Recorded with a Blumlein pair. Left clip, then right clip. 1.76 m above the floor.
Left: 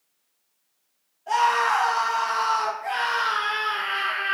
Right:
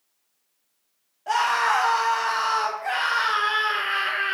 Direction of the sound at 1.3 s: 30° right.